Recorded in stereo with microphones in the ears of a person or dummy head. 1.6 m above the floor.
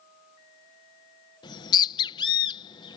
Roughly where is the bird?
Left.